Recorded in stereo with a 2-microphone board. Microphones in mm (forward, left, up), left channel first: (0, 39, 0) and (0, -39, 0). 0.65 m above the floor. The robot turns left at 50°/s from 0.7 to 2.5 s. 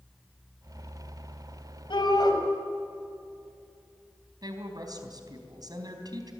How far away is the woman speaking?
About 4 m.